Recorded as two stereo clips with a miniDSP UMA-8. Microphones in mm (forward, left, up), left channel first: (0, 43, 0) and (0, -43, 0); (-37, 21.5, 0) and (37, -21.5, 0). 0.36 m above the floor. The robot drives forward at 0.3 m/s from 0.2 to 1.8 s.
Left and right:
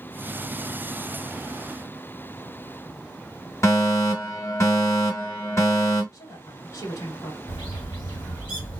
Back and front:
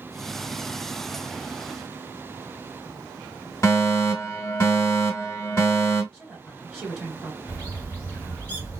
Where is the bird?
85° left, 3 m.